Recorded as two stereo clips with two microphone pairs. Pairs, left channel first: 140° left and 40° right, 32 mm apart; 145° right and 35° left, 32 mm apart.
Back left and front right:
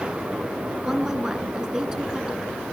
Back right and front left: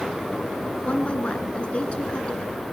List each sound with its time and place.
0.8 s a woman speaking: 105° right, 2.5 m